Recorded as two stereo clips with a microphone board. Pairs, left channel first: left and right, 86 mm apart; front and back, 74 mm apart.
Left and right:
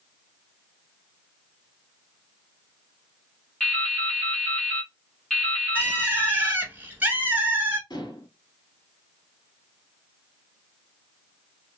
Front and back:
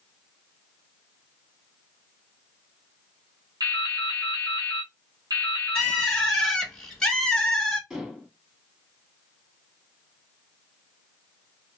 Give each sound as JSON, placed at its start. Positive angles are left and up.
{"t": 3.6, "sound": "dripping", "azimuth_deg": 175, "distance_m": 1.3}
{"t": 5.8, "sound": "a bird", "azimuth_deg": -70, "distance_m": 0.9}
{"t": 7.9, "sound": "dishes clattering", "azimuth_deg": 105, "distance_m": 1.3}